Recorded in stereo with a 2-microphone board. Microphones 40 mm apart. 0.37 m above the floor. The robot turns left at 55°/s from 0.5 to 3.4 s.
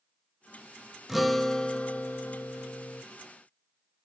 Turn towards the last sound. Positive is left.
turn(degrees=60)